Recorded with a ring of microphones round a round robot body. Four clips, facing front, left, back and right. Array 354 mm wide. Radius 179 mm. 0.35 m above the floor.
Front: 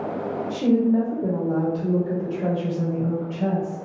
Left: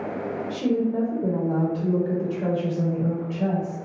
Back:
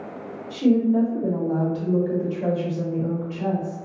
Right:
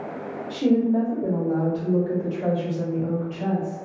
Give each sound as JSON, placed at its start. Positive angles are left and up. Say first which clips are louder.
{"t": 0.5, "sound": "a woman speaking", "louder": "right 4 dB, back 1 dB", "azimuth_deg": -35, "distance_m": 1.2}